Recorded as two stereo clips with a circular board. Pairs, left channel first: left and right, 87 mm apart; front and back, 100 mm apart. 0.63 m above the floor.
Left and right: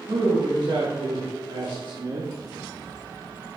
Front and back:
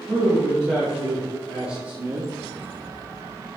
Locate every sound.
0.1 s a man speaking: 95° right, 3.5 m; by 2.3 s 120° right, 1.1 m